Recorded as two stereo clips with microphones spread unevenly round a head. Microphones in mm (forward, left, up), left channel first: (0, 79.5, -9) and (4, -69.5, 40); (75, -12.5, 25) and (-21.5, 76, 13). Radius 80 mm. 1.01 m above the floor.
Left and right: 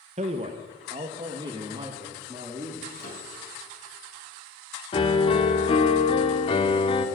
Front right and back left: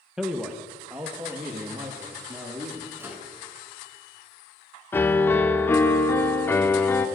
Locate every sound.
0.2 s a man speaking: 140° right, 0.7 m; by 2.9 s 160° right, 2 m
3.0 s a microwave: 65° left, 7 m
4.9 s a piano: 30° left, 1.2 m